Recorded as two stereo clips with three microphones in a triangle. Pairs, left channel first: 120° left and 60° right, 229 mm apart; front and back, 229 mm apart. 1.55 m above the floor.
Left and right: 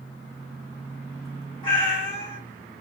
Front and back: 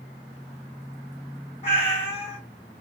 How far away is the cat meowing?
About 1.3 m.